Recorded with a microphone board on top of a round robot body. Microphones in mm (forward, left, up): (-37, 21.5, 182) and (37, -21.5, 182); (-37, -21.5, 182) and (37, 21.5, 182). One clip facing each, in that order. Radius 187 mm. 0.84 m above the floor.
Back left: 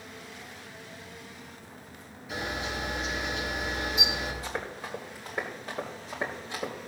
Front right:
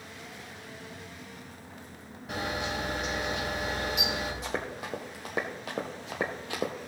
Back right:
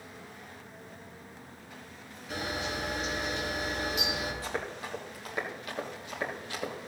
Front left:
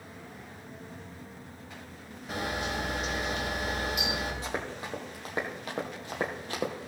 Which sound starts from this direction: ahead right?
Running footsteps, at 4.4 s.